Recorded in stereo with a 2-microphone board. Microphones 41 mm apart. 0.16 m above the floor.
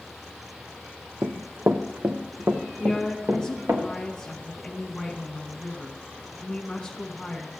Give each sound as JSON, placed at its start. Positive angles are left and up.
{"t": 1.2, "sound": "running footsteps", "side_deg": -85, "distance_m": 0.6}
{"t": 2.8, "sound": "a woman speaking", "side_deg": 15, "distance_m": 1.2}